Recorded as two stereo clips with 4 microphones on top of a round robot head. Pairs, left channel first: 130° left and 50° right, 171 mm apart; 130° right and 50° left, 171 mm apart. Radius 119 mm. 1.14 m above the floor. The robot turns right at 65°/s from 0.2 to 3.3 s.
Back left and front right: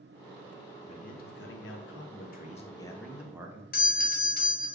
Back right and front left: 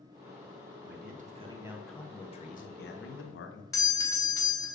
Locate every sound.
0.9 s a man speaking: 75° left, 0.9 m; by 3.6 s 125° right, 0.9 m
3.7 s a doorbell: 160° left, 1.0 m